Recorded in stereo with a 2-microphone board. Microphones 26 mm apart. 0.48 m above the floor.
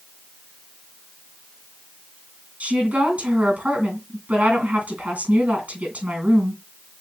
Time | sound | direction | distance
2.6 | a woman speaking | 70° right (ahead or behind) | 3.5 m